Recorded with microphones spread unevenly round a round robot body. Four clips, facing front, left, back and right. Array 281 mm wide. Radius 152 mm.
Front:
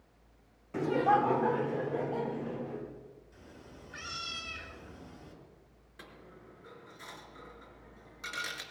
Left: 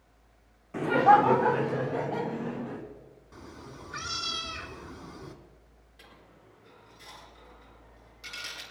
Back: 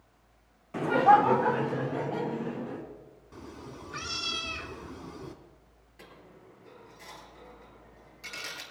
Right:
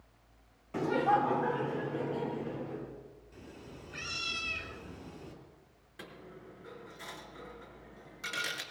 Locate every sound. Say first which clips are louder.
0.7 s laughter: left 8 dB, back 6 dB; 10° right, 0.8 m; by 2.8 s 120° left, 3 m
3.3 s a cat meowing: left 5 dB, back 8 dB; 165° left, 1.9 m
6.0 s a dropped coin: right 7 dB, back 1 dB; 95° right, 3 m